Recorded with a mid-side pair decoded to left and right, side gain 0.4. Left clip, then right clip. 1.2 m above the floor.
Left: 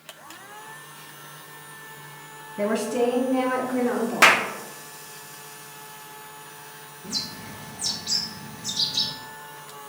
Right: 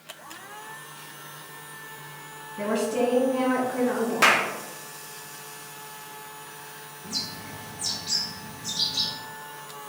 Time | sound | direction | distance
2.6 | a woman speaking | 40° left | 2.0 m
4.2 | a clap | 50° left | 0.6 m
7.0 | a bird | 35° left | 1.9 m